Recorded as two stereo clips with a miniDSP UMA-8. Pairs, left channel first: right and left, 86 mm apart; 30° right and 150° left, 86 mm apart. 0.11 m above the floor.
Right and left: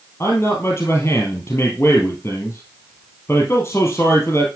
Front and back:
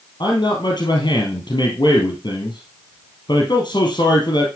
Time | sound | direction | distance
0.2 | a man speaking | 30° right | 3 m